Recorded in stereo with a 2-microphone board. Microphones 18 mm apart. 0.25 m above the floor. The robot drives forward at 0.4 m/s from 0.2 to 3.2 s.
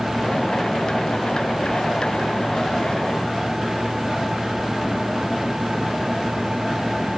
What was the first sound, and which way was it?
Only background noise.